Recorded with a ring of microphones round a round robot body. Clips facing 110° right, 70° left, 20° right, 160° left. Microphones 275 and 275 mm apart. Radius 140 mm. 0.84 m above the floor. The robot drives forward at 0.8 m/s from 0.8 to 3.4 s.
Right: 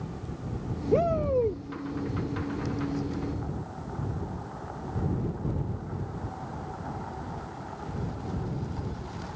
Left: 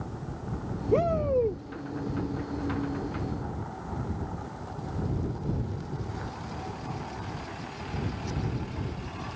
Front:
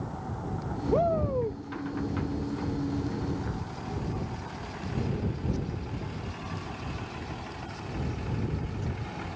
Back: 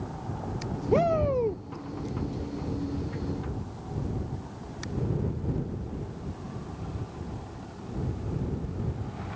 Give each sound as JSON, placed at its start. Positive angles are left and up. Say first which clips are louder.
{"t": 0.9, "sound": "a shout", "louder": "even, back 3 dB", "azimuth_deg": 150}